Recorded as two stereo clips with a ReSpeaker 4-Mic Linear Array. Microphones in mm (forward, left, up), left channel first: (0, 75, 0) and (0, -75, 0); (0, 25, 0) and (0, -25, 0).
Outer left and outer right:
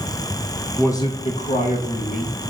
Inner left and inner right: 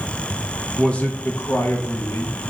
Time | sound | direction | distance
0.8 | a man speaking | 10° left (ahead or behind) | 0.8 m